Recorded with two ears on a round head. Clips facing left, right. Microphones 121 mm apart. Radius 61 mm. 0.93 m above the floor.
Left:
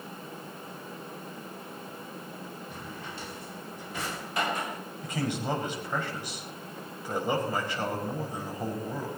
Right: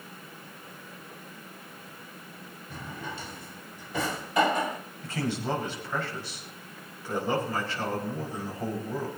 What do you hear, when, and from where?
2.7 s a drawer: 75° right (ahead or behind), 1.3 m
5.0 s a man speaking: 15° left (ahead or behind), 4.5 m